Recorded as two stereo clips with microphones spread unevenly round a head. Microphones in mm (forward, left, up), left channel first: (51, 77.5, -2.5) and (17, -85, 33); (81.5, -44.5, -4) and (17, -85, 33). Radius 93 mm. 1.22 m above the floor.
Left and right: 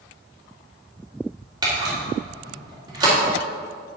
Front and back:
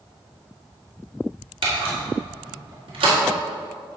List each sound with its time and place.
1.6 s a camera shutter: 175° right, 2 m